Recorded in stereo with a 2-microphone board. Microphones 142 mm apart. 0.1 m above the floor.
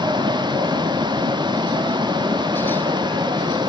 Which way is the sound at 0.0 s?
30° right (ahead or behind).